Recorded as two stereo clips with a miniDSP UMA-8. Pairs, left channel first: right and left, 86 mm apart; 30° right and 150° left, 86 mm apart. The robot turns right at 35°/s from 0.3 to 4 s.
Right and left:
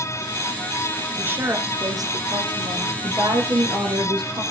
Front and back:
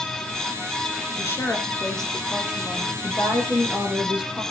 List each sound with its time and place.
1.2 s a woman speaking: 25° left, 3 m; by 2.9 s 85° left, 3 m
3.0 s a woman speaking: 25° left, 5 m; by 4.4 s 60° left, 5 m